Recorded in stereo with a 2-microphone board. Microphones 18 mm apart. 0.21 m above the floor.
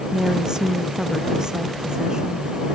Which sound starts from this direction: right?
A woman speaking, at 0.1 s.